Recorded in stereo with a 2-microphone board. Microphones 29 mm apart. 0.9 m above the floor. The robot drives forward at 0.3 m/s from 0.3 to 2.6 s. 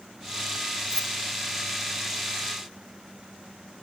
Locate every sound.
0.9 s keys jangling: 25° left (ahead or behind)